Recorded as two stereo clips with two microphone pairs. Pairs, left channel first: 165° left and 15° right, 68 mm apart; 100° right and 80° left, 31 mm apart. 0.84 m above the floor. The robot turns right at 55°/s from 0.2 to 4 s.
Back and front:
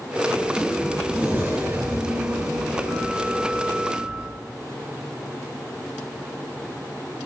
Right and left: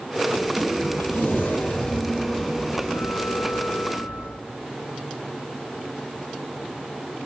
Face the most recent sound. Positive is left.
turn(degrees=70)